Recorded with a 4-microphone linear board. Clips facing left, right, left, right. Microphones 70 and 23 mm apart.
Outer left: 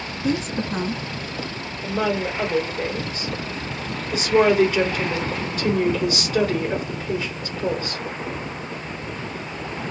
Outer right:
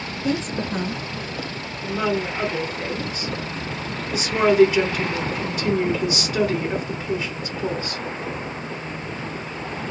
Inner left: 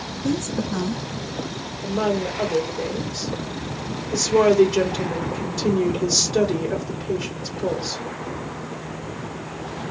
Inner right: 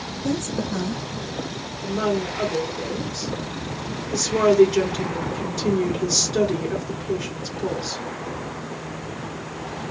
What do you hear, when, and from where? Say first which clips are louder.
0.2 s a woman speaking: outer left 1 dB, inner left 1 dB; 10° left (ahead or behind), 1.1 m
1.8 s a woman speaking: even, inner left 1 dB; 10° right (ahead or behind), 1.7 m